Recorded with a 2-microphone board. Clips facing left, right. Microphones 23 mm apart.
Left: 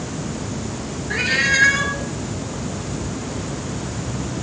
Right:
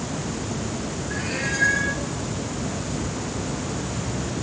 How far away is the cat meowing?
About 3 m.